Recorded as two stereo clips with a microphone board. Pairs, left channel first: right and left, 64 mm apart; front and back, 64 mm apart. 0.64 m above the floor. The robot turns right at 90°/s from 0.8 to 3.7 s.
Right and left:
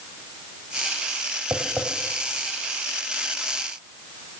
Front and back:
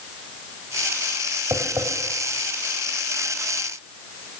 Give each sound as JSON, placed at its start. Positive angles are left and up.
{"t": 1.5, "sound": "tapping", "azimuth_deg": 135, "distance_m": 4.0}